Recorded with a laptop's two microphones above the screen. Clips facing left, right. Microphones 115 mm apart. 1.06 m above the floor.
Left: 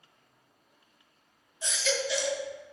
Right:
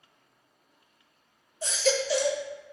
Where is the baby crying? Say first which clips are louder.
Right 5 dB; 40° right (ahead or behind), 0.6 m.